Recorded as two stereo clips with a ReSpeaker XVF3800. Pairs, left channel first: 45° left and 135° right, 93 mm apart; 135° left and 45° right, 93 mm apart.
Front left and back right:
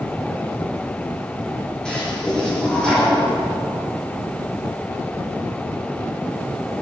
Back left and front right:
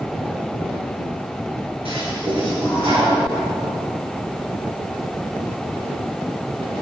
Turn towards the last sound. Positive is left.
turn(degrees=-35)